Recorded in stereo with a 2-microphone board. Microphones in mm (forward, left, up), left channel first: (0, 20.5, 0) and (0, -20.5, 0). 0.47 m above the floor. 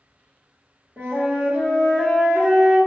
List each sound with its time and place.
1.0 s a flute: 65° right (ahead or behind), 1.3 m